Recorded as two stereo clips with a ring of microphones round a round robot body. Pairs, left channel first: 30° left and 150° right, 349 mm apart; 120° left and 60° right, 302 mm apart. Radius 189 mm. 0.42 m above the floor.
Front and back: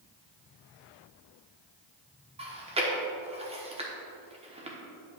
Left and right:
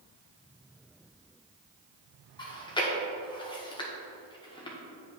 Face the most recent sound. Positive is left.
turn(degrees=165)